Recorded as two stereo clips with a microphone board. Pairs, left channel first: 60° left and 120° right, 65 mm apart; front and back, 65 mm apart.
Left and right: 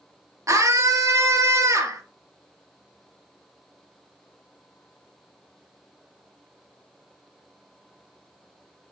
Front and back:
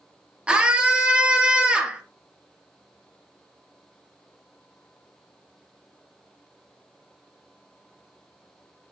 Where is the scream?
110° right, 1.8 m.